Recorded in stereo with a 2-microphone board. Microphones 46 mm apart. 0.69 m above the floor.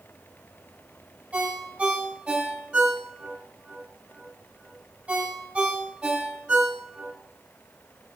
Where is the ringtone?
20° right (ahead or behind), 3 m.